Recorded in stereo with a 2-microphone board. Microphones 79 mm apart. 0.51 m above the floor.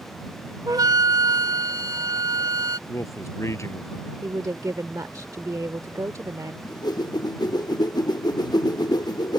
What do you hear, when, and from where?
0.7 s a flute: 55° right (ahead or behind)
2.9 s a man speaking: 40° left (ahead or behind)
4.2 s a woman speaking: 50° right (ahead or behind)
6.6 s a whoosh: 60° left (ahead or behind)